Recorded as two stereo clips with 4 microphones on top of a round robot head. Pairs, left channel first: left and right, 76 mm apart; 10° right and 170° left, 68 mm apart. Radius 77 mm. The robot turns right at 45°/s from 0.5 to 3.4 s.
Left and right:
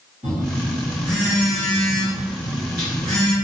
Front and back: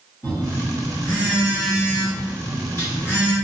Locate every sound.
0.2 s a phone buzzing: 80° right, 1.9 m; by 3.4 s 50° left, 1.9 m